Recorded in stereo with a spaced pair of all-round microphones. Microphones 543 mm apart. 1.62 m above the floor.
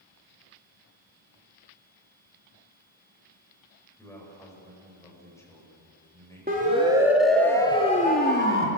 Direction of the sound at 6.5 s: 15° right (ahead or behind).